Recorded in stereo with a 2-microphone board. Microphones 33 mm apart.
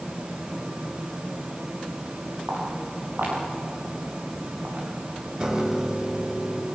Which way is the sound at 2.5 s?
70° right (ahead or behind).